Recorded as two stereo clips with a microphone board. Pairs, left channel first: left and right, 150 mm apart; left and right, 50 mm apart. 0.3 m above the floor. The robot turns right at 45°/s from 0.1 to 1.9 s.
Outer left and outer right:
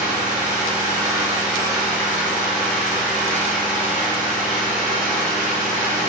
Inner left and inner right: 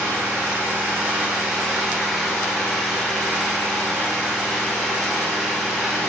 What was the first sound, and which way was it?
An engine running, 75° right.